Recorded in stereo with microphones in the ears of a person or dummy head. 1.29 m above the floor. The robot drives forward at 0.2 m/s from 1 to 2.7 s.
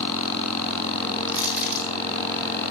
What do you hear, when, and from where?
1.3 s crushing: 5° right (ahead or behind), 7 m